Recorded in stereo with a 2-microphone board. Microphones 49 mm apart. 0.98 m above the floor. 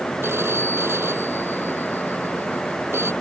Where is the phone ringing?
55° right (ahead or behind).